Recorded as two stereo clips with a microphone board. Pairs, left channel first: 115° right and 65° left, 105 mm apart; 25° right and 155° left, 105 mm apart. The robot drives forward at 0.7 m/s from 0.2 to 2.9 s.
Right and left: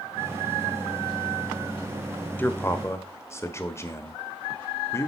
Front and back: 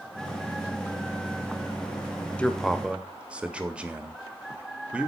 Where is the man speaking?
80° right, 0.8 m; by 5.1 s 135° right, 0.9 m.